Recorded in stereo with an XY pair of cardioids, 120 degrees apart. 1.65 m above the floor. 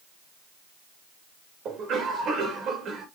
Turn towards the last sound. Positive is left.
turn(degrees=-60)